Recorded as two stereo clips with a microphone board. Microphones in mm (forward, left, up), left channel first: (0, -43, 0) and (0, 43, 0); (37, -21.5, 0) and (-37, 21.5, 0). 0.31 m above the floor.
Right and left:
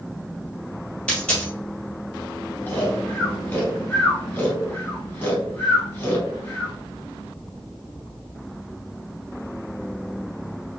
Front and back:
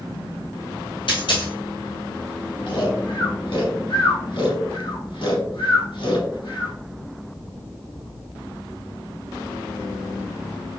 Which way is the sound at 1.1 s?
10° right.